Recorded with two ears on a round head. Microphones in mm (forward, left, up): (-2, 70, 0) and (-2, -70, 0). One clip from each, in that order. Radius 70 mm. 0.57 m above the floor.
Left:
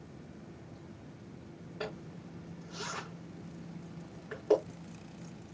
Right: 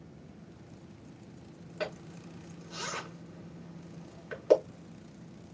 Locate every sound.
1.8 s a zipper: 75° right (ahead or behind), 5.5 m